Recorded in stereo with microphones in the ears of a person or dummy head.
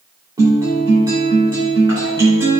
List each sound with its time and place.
0.4 s a guitar: 20° right (ahead or behind), 2.5 m